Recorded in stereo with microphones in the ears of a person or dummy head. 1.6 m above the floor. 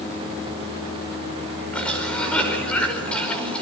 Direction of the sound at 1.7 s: 10° left (ahead or behind).